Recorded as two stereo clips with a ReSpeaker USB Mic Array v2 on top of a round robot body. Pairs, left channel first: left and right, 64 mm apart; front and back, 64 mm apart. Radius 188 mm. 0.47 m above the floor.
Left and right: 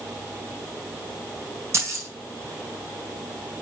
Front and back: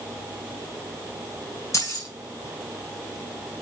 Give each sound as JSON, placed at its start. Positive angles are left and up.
{"t": 1.7, "sound": "keys jangling", "azimuth_deg": -40, "distance_m": 3.0}